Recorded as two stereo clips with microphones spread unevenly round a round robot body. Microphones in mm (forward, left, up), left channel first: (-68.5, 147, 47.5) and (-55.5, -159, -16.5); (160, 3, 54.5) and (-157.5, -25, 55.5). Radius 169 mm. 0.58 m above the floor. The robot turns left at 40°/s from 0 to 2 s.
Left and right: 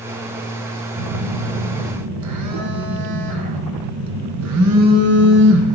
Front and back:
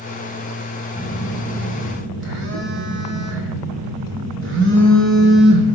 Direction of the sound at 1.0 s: 80° right.